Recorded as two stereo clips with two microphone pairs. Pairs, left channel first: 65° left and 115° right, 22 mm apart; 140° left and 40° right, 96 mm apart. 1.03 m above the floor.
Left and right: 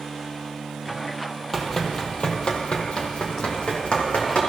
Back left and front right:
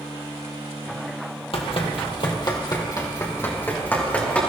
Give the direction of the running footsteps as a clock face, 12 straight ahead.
7 o'clock.